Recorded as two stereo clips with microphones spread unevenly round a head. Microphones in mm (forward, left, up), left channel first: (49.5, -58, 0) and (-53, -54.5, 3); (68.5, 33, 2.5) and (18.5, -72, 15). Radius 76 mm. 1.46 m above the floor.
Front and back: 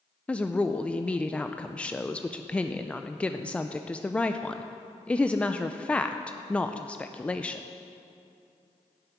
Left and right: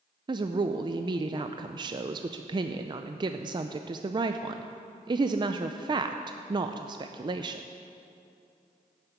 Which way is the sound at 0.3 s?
80° right.